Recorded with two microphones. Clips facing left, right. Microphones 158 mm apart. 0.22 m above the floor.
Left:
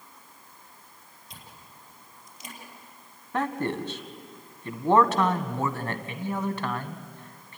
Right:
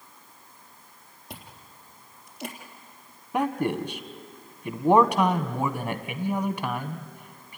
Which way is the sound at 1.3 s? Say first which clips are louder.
Right 5 dB; 65° right (ahead or behind).